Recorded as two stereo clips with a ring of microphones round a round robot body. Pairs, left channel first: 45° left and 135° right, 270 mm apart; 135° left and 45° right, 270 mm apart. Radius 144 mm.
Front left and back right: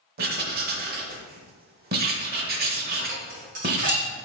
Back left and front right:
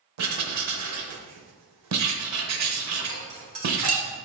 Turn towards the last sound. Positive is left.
turn(degrees=-75)